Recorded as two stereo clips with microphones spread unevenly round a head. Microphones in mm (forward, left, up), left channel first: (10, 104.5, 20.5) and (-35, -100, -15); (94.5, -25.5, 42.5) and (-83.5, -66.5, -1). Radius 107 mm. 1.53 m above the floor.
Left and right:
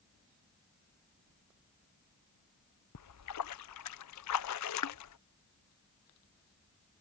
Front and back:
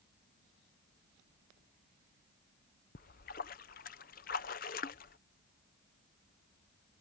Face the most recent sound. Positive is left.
turn(degrees=65)